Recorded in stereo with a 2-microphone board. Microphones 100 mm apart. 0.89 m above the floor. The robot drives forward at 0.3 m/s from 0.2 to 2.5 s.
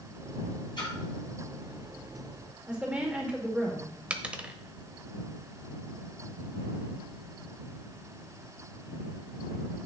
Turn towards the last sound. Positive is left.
turn(degrees=-15)  # may be behind; listen again after turning